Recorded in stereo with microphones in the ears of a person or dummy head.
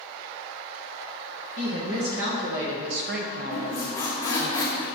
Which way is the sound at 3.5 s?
20° left (ahead or behind).